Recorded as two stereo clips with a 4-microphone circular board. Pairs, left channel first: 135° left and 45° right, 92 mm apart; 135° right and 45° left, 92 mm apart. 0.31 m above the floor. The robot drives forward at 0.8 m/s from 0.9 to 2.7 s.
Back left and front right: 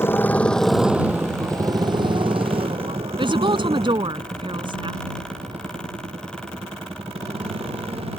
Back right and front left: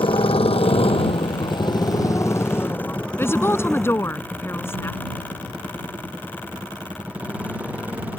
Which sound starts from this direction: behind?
A motorcycle, at 0.0 s.